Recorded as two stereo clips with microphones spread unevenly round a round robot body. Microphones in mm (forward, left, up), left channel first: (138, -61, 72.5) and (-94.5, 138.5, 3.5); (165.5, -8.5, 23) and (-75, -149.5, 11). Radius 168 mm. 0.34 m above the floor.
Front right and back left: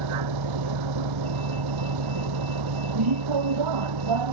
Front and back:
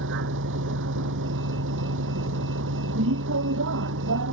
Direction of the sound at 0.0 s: 150° left.